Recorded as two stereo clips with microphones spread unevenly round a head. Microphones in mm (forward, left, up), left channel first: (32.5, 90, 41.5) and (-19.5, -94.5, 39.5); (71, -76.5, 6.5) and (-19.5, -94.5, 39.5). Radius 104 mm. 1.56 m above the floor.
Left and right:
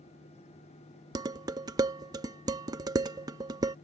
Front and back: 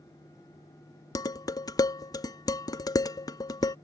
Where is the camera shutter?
I don't hear a camera shutter.